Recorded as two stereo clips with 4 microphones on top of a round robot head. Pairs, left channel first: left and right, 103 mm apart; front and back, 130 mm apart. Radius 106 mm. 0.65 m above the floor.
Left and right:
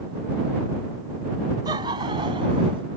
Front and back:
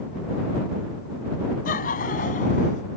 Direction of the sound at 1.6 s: 30° right.